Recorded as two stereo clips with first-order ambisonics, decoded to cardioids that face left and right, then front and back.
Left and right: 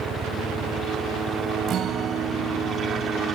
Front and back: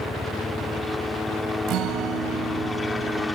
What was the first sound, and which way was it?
A helicopter, 65° right.